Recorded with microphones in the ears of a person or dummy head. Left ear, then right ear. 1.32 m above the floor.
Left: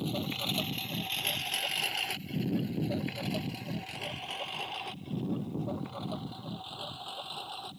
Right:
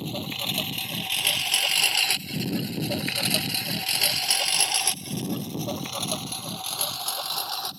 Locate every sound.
0.0 s a lawn mower: 10° right (ahead or behind); by 7.8 s 60° right (ahead or behind)